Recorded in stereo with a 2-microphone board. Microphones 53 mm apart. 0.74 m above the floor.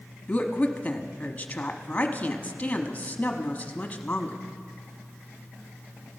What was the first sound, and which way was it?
A woman speaking, 25° left (ahead or behind).